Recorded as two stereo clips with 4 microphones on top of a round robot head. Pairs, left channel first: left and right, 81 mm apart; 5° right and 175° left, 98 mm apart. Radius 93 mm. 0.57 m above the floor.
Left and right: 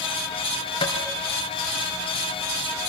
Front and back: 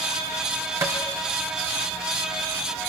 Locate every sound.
0.8 s tapping: 110° left, 3 m